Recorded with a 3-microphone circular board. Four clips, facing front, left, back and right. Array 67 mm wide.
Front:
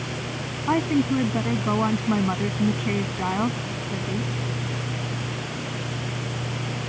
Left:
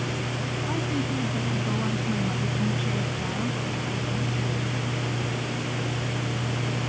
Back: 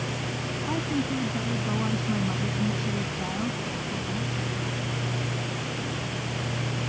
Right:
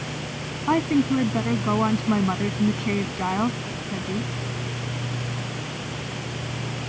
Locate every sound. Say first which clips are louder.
0.7 s a woman speaking: right 10 dB, front 8 dB; 55° right